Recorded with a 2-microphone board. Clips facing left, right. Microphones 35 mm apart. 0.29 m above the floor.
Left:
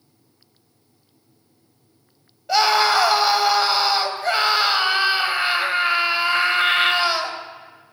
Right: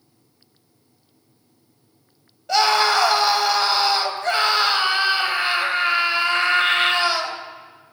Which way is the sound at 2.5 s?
5° left (ahead or behind).